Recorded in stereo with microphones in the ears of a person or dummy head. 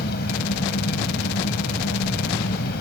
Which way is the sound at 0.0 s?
60° left (ahead or behind).